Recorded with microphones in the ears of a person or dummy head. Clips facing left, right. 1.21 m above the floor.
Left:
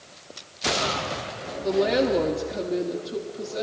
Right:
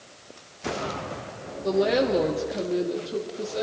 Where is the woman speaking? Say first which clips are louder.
Even; centre (ahead or behind), 0.9 m.